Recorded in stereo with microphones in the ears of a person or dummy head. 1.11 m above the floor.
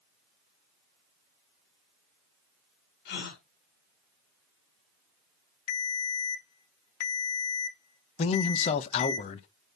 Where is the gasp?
55° left (ahead or behind), 2.5 m.